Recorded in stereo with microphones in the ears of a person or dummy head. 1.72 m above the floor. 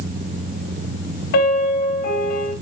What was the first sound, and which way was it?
A piano, 55° left (ahead or behind).